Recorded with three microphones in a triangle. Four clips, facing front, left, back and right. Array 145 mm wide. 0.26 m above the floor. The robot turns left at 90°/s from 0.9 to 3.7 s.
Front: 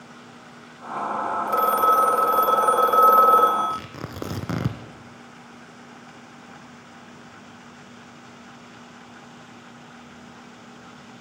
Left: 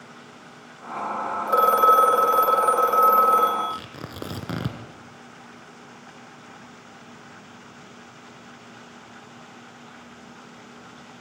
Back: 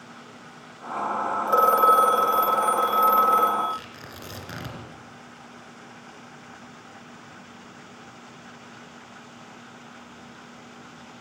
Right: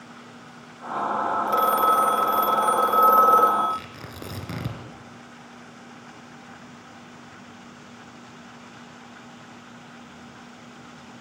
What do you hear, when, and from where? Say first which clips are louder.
1.5 s a phone ringing: left 5 dB, back 2 dB; 145° left, 0.7 m; by 3.8 s 60° right, 0.7 m
3.7 s tearing paper: right 2 dB, front 3 dB; 25° left, 2 m